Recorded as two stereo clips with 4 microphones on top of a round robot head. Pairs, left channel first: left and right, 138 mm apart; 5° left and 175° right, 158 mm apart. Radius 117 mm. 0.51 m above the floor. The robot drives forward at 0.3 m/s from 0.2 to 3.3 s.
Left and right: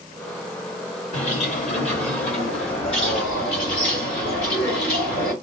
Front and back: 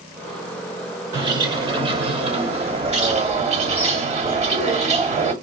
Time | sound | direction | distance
1.1 | a bird | 125° left | 1.8 m